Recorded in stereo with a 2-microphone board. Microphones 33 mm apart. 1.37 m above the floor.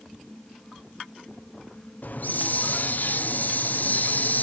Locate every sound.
2.0 s a hiss: 60° left (ahead or behind), 0.6 m